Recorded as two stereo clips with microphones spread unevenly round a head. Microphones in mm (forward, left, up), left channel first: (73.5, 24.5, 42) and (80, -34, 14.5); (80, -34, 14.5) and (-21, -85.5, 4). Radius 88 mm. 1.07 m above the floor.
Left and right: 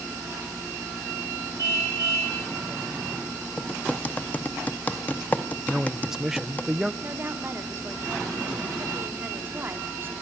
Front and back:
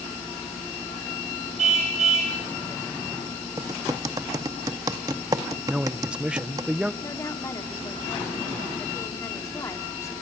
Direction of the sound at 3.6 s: 140° left.